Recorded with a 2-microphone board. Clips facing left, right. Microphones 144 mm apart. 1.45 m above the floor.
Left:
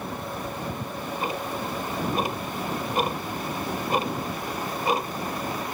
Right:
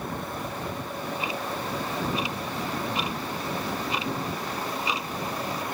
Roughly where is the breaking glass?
I don't hear breaking glass.